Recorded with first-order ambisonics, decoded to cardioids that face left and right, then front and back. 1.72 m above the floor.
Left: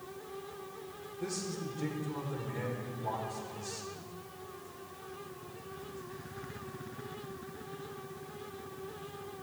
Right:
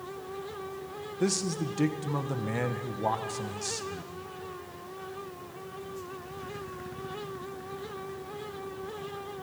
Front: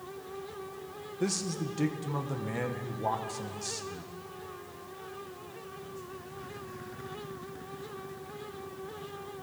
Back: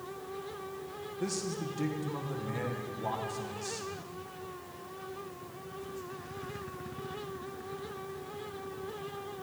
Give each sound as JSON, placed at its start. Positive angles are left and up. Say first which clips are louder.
{"t": 1.2, "sound": "a man speaking", "louder": "right 9 dB, front 3 dB", "azimuth_deg": -70, "distance_m": 1.0}